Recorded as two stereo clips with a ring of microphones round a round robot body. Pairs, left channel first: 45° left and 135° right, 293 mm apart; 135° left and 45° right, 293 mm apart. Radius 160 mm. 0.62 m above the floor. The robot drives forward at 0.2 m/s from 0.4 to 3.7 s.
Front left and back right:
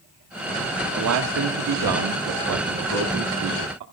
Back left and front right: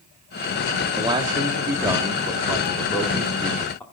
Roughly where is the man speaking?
Behind right.